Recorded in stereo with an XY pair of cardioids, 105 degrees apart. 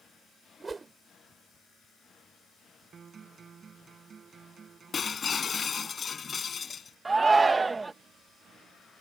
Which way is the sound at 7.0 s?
20° right.